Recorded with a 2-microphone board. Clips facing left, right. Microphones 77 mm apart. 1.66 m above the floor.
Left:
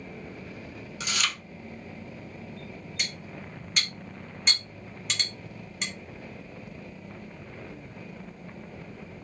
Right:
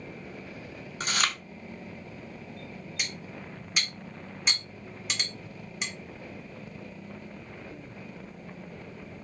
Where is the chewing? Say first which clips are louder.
Right 2 dB; 40° right (ahead or behind), 0.8 m.